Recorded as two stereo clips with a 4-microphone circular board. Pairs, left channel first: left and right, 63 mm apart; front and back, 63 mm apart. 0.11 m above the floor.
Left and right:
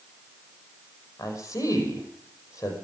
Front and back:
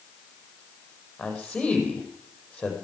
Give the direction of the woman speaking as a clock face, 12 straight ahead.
9 o'clock.